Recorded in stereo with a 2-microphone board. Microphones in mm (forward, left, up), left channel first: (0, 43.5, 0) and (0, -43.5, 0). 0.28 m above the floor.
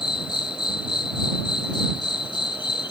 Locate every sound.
0.0 s an insect: 60° left (ahead or behind)